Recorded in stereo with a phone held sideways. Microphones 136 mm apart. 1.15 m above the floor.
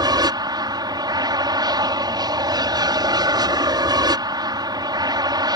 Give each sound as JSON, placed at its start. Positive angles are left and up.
{"t": 0.0, "sound": "an aircraft", "side_deg": -30}